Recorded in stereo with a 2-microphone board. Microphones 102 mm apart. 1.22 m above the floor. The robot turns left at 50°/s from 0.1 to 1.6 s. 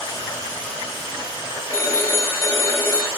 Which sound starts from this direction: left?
A phone ringing, at 1.7 s.